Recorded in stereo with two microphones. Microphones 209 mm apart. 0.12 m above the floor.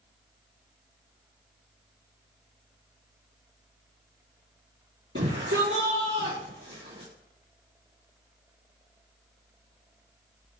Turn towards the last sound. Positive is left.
turn(degrees=-65)  # may be behind; listen again after turning